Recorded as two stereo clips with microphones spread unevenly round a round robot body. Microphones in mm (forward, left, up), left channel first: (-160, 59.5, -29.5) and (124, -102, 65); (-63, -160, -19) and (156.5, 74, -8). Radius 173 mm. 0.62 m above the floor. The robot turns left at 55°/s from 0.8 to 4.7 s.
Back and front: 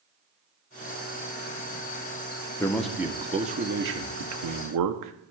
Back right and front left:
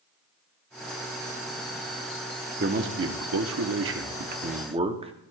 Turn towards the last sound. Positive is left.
turn(degrees=-20)